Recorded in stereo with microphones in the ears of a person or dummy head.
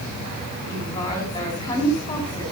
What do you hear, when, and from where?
0.7 s a woman speaking: 25° left (ahead or behind), 6 m